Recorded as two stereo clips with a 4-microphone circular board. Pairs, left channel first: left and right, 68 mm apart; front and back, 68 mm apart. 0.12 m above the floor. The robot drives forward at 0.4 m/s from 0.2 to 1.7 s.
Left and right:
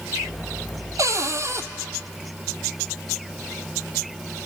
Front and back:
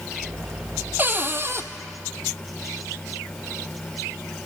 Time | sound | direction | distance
1.0 | a cupboard door | 120° right | 1.1 m